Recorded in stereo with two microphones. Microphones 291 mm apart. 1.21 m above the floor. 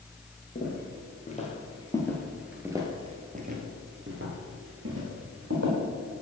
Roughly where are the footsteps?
Left.